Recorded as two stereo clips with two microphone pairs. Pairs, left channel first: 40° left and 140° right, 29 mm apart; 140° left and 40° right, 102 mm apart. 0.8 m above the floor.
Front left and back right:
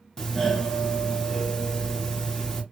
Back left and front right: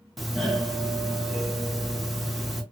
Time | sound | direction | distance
0.2 | a doorbell | 50° left | 1.3 m